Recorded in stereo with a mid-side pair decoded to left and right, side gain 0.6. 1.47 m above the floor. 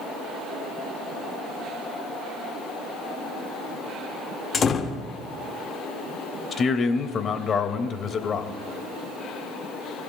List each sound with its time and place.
4.5 s a door slam: 35° left, 1.7 m
6.5 s a man speaking: 40° left, 1.9 m